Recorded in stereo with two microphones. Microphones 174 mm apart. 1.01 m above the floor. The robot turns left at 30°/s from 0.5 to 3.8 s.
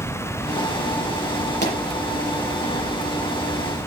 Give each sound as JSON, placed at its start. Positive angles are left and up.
{"t": 1.6, "sound": "a pop", "side_deg": 80, "distance_m": 7.5}